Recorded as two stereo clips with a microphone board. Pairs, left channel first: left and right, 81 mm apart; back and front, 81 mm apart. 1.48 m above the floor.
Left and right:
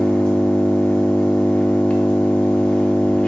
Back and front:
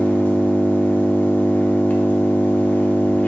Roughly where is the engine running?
Behind left.